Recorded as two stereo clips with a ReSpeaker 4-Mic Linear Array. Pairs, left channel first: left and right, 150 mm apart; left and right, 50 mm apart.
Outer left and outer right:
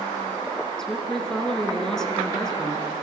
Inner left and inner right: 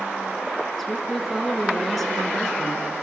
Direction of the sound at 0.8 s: 5° left (ahead or behind).